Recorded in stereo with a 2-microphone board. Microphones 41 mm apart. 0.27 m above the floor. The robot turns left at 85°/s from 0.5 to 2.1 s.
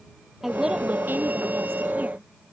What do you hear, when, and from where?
0.4 s a woman speaking: 5° right; by 2.2 s 145° right